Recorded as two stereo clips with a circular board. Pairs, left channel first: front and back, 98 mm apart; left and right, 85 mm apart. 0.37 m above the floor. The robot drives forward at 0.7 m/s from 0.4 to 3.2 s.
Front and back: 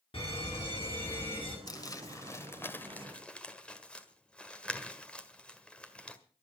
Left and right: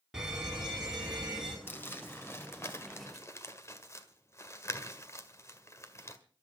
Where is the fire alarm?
10° right, 5 m.